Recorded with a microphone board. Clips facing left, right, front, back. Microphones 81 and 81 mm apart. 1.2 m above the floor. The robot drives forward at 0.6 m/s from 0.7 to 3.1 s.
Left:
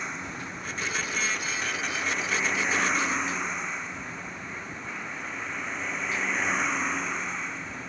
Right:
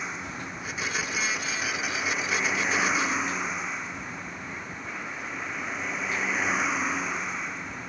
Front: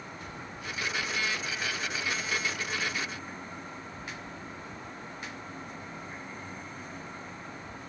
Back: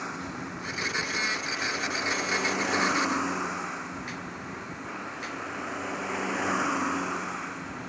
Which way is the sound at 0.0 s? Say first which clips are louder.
Even, back 7 dB; straight behind.